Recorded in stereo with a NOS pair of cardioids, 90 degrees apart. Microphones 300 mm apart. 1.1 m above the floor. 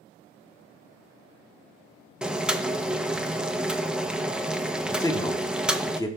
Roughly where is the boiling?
Ahead.